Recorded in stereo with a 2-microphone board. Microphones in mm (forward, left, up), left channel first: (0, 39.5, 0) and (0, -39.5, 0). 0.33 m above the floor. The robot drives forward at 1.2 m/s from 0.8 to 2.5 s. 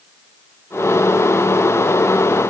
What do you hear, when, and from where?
Only background noise.